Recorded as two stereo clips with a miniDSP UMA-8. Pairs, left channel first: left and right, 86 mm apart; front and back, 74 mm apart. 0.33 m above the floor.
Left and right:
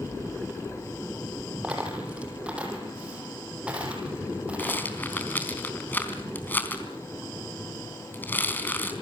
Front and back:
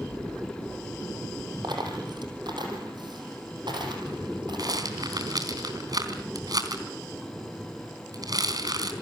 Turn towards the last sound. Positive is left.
turn(degrees=155)